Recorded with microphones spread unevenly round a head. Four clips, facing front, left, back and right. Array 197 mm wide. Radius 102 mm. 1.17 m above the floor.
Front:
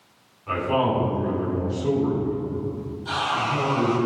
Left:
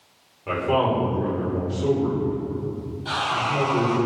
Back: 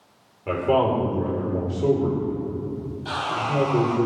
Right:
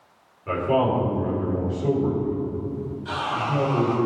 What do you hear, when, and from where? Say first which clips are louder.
0.5 s a man speaking: even, back 2 dB; 175° left, 4.5 m
3.0 s sawing: left 2 dB, front 2 dB; straight behind, 4 m